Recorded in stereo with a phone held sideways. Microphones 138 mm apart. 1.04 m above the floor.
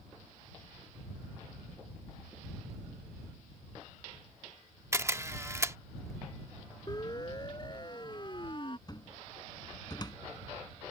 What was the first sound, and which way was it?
A camera shutter, 20° right (ahead or behind).